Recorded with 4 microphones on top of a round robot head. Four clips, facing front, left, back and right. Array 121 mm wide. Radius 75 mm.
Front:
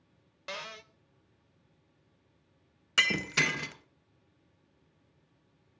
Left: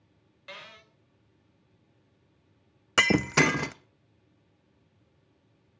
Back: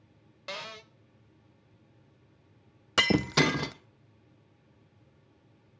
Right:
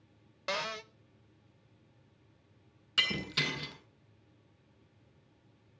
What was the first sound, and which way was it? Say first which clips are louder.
A cupboard door: right 11 dB, back 1 dB; 100° right.